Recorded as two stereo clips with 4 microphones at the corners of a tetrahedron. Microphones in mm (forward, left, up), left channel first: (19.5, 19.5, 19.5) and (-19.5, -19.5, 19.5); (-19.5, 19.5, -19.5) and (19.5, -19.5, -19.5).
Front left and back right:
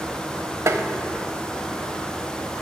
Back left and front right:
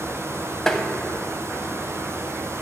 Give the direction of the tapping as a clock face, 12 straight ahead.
5 o'clock.